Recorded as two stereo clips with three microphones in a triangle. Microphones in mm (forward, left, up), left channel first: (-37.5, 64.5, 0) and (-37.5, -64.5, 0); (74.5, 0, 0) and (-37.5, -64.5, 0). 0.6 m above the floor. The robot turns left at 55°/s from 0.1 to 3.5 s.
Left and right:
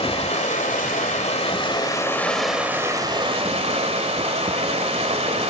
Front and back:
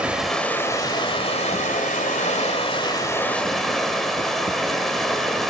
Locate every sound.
0.0 s running water: 130° left, 1.8 m; by 5.5 s 60° right, 1.8 m